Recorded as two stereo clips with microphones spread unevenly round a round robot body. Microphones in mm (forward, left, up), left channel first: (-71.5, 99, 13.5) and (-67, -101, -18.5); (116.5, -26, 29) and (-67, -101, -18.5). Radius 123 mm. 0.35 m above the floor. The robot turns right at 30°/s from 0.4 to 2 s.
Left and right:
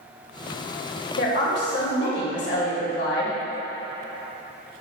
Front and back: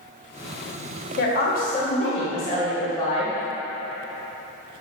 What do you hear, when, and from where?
1.2 s a woman speaking: 65° left, 1.3 m; by 3.4 s 90° left, 1.3 m